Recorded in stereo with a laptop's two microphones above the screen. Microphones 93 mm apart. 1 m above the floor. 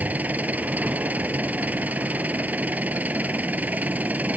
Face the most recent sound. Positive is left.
turn(degrees=-15)  # may be behind; listen again after turning